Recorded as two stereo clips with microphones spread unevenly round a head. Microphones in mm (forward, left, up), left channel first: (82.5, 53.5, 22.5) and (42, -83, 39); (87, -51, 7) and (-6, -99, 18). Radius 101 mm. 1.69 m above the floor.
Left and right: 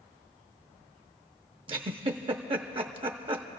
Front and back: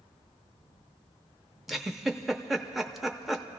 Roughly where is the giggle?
Ahead right.